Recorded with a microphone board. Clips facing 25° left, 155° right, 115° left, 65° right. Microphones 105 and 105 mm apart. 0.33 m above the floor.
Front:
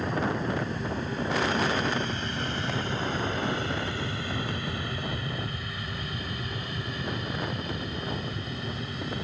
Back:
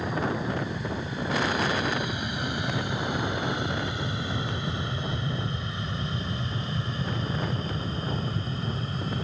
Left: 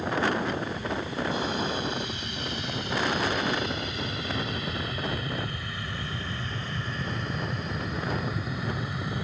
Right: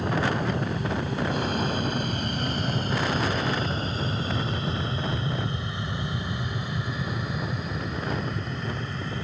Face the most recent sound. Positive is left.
turn(degrees=180)